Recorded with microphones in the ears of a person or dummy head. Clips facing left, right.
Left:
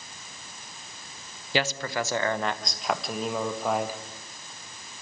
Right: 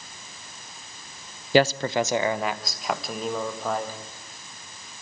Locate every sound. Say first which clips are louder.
1.5 s a man speaking: right 8 dB; 35° right (ahead or behind), 0.6 m; by 4.0 s 15° left (ahead or behind), 1.8 m